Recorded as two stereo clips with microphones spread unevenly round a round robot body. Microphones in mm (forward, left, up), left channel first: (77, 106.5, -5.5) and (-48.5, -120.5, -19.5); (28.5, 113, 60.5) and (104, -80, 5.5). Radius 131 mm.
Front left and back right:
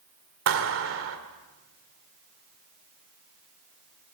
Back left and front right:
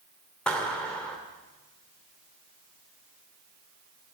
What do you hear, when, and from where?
0.5 s a clap: 160° right, 2 m